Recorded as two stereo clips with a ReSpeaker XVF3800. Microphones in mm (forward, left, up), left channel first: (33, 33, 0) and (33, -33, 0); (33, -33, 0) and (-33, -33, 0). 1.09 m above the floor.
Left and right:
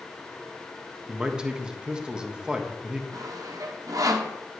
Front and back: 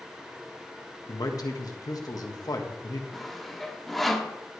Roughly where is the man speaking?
Ahead.